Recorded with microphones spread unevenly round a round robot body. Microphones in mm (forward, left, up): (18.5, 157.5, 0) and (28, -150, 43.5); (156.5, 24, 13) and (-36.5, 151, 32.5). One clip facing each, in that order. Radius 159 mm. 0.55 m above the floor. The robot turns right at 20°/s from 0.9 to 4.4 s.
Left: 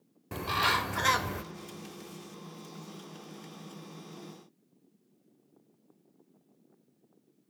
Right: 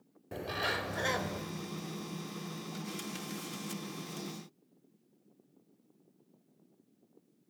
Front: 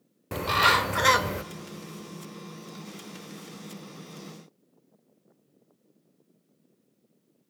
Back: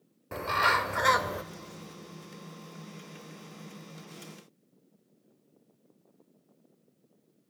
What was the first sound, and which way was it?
A bird, 20° left.